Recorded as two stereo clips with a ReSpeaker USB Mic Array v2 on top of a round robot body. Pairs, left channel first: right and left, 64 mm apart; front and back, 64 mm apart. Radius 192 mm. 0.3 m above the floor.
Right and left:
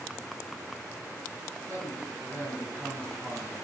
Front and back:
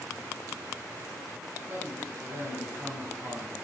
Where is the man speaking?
130° left, 4.5 m; by 3.6 s 145° left, 3.5 m.